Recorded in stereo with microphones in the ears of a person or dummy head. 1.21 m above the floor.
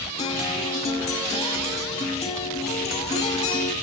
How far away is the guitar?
About 4 m.